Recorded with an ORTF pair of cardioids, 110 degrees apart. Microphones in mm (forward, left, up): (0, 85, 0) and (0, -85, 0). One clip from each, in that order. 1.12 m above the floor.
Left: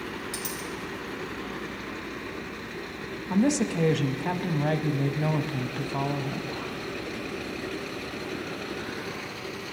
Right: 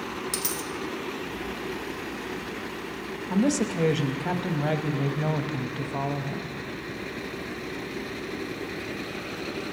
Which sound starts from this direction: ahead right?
A dropped coin, at 0.3 s.